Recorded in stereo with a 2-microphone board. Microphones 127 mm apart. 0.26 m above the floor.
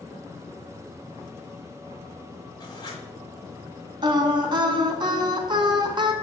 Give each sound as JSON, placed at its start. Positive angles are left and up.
{"t": 2.6, "sound": "writing", "side_deg": 30, "distance_m": 1.5}
{"t": 4.0, "sound": "singing", "side_deg": -35, "distance_m": 0.5}